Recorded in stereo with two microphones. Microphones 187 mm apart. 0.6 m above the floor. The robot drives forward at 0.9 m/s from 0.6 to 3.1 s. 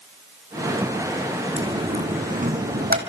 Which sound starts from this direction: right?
A dropped coin, at 1.6 s.